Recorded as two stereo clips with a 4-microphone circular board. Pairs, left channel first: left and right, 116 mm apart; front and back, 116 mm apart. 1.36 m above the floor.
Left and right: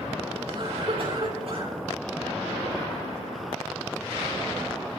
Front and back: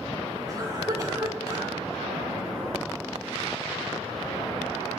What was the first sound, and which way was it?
A cough, 125° right.